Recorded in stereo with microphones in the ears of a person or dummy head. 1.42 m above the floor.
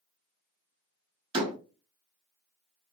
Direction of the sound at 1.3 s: 25° right (ahead or behind).